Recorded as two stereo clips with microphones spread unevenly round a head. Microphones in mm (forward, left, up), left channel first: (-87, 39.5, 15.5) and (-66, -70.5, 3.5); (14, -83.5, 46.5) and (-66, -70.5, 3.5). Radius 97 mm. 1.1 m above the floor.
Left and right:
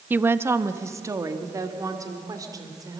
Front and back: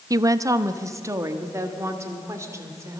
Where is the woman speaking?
155° right, 0.8 m; by 3.0 s 135° right, 3.5 m.